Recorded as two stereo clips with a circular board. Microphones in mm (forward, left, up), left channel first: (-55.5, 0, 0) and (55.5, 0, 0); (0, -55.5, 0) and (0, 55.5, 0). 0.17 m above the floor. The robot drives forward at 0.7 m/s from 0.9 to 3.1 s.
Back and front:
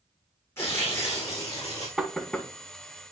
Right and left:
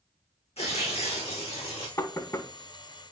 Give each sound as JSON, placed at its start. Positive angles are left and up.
{"t": 0.6, "sound": "tearing paper", "azimuth_deg": -115, "distance_m": 4.0}
{"t": 2.0, "sound": "knocking", "azimuth_deg": -75, "distance_m": 0.9}